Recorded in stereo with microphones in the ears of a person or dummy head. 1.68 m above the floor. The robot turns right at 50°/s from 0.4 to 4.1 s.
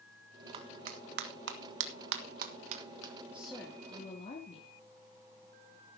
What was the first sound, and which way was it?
A clap, 25° right (ahead or behind).